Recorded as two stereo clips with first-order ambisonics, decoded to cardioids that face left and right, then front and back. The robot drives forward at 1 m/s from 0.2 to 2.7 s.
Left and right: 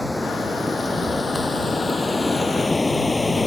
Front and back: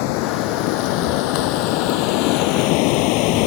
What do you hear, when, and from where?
0.0 s running water: 5° left; by 3.5 s 10° left